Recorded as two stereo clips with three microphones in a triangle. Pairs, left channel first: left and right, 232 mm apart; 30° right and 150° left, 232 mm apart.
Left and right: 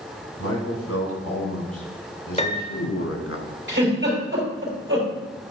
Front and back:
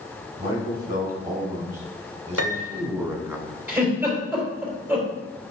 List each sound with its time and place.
0.4 s a man speaking: 100° left, 4 m; by 3.4 s 65° left, 1.4 m
2.4 s a piano: 150° left, 0.9 m
3.7 s a giggle: 125° right, 4 m